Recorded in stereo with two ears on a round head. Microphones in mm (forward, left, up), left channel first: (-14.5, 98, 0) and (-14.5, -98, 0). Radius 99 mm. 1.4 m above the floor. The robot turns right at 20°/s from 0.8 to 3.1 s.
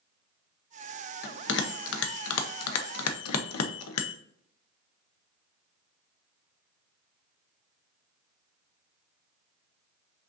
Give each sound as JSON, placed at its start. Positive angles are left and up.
{"t": 1.2, "sound": "a bell", "side_deg": 45, "distance_m": 0.6}